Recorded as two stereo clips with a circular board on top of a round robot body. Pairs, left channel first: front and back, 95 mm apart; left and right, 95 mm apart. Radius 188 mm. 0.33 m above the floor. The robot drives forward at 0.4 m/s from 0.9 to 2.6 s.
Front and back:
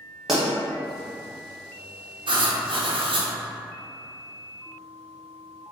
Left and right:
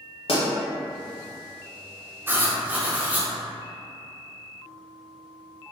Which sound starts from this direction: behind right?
Writing, at 2.3 s.